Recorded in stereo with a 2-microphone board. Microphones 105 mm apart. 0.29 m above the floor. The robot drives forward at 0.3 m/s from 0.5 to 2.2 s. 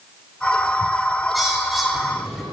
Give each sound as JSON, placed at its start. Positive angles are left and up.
{"t": 1.3, "sound": "a bird", "side_deg": 0, "distance_m": 0.6}